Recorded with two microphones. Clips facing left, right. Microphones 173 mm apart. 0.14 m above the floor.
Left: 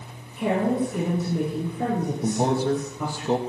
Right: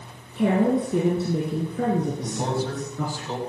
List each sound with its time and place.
0.3 s a woman speaking: 75° right (ahead or behind), 7 m
2.2 s a man speaking: 45° left (ahead or behind), 2.5 m